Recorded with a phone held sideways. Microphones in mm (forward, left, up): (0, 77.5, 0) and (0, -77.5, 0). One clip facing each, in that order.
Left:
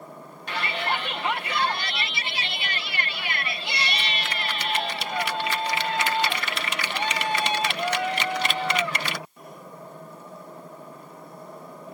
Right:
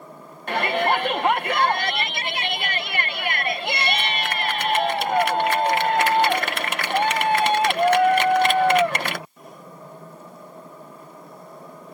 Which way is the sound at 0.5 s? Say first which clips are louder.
Right 8 dB; 55° right (ahead or behind).